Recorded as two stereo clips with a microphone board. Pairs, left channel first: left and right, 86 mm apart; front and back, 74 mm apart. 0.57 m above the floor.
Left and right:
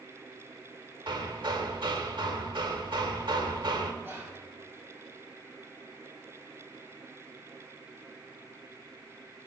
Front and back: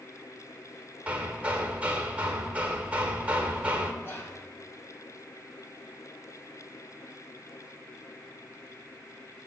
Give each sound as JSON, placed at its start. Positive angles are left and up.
{"t": 1.1, "sound": "hammering", "azimuth_deg": -110, "distance_m": 1.2}
{"t": 4.0, "sound": "whispering", "azimuth_deg": -40, "distance_m": 1.7}